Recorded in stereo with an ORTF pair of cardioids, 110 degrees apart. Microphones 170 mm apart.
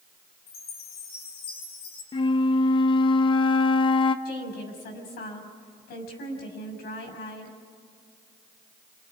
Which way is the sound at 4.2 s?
65° left.